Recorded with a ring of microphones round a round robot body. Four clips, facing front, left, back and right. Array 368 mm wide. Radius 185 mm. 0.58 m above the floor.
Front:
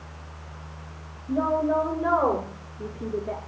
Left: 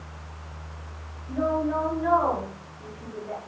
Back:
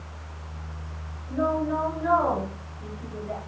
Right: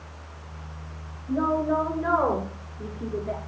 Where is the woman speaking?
40° right, 8.5 m; by 3.4 s 50° right, 8 m.